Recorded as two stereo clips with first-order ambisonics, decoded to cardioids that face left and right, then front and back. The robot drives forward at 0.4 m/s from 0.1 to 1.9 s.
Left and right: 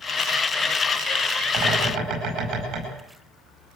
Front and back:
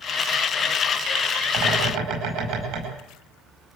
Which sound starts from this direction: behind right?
A bird, at 1.5 s.